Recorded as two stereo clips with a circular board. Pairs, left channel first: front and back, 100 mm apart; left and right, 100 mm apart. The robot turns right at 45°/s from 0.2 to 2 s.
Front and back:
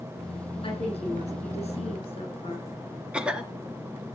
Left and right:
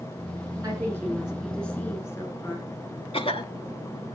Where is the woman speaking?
30° right, 10 m; by 2.6 s 30° left, 10 m.